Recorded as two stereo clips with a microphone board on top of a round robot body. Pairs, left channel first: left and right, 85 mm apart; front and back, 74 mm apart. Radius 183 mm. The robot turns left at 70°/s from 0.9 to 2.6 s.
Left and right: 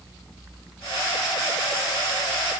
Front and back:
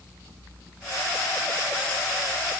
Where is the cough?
I don't hear a cough.